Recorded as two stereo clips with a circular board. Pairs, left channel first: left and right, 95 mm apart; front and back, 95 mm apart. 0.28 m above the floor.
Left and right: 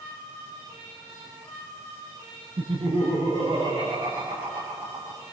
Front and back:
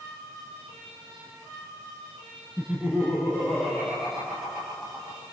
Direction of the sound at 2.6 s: 95° right.